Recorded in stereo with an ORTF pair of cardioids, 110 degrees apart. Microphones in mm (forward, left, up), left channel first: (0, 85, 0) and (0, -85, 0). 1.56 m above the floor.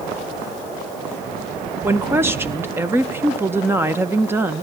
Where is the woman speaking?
15° right, 1.5 m.